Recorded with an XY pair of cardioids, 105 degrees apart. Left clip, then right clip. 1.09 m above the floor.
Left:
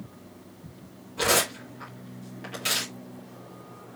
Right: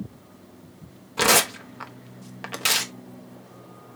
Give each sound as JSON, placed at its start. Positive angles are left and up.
{"t": 1.2, "sound": "tearing paper", "azimuth_deg": -65, "distance_m": 1.2}